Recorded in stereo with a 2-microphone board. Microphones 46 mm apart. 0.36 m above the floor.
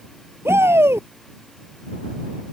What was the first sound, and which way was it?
A shout, 70° right (ahead or behind).